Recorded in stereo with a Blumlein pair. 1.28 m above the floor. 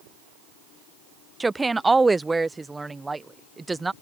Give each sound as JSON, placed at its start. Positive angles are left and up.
{"t": 1.4, "sound": "a woman speaking", "azimuth_deg": -10}